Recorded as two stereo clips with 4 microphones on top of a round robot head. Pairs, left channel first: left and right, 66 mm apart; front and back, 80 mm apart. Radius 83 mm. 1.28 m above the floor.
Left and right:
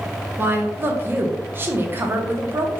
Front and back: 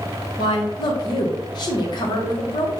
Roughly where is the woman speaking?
Ahead right.